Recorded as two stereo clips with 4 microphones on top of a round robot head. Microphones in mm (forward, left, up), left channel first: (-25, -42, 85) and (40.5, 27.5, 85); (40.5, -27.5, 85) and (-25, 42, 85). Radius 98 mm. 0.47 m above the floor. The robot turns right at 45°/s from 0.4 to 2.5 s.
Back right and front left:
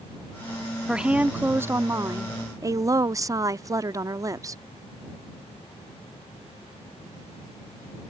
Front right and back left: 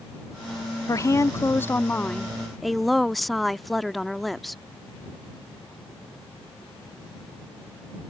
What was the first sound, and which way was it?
A woman speaking, 30° right.